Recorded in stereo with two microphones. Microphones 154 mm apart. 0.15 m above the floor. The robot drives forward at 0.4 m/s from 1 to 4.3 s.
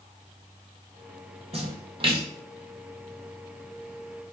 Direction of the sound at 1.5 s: 40° right (ahead or behind).